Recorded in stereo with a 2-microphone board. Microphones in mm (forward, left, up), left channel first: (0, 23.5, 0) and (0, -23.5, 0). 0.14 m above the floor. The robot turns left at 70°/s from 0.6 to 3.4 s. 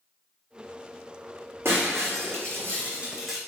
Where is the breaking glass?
60° right, 1.3 m; by 3.4 s straight behind, 1.3 m.